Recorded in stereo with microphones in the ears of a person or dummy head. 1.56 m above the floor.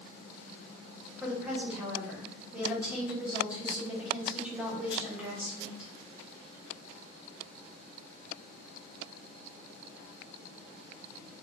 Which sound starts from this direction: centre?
A woman speaking, at 1.2 s.